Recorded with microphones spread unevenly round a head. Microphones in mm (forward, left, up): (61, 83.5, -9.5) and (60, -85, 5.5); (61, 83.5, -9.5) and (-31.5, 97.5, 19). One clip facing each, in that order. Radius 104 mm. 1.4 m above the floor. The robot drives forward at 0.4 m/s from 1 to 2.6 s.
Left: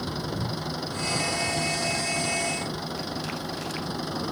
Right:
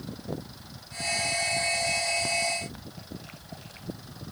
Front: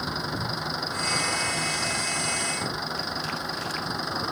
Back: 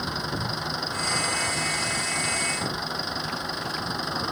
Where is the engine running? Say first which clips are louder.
Left 6 dB, even; 80° left.